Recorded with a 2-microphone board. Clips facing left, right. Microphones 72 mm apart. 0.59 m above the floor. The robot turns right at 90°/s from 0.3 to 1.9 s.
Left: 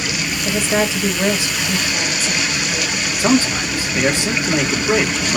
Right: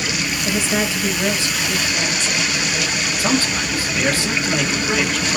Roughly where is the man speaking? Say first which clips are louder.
Left 5 dB; centre.